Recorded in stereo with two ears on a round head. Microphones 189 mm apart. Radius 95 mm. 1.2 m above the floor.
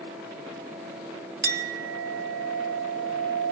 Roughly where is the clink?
Right.